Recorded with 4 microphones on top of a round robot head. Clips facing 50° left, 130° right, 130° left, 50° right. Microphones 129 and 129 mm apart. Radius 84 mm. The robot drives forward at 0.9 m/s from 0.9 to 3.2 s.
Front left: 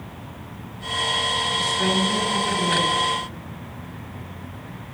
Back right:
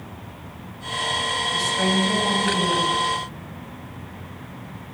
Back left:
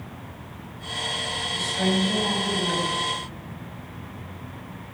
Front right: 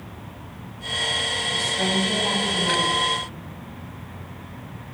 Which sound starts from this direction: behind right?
A woman speaking, at 1.5 s.